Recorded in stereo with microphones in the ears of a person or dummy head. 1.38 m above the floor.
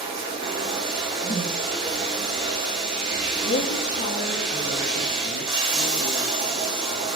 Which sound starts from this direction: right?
Running water, at 0.0 s.